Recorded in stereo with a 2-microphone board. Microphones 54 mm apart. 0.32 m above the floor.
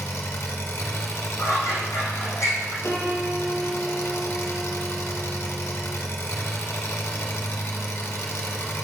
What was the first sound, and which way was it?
An engine running, 60° left (ahead or behind).